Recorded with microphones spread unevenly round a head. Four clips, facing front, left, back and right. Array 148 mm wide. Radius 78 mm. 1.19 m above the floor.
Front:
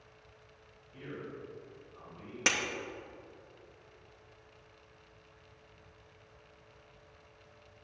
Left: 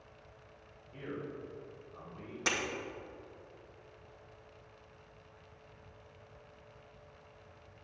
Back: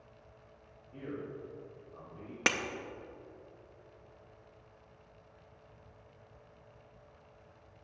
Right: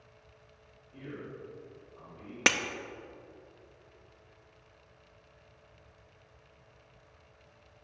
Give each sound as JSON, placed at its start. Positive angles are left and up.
{"t": 0.9, "sound": "a man speaking", "azimuth_deg": 155, "distance_m": 2.5}
{"t": 2.5, "sound": "breaking glass", "azimuth_deg": -105, "distance_m": 0.6}